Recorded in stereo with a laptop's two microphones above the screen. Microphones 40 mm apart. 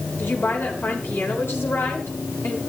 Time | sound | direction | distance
0.2 | a woman speaking | 75° left (ahead or behind) | 4 m